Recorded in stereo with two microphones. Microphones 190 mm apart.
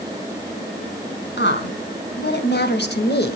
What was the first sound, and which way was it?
A woman speaking, 70° left (ahead or behind).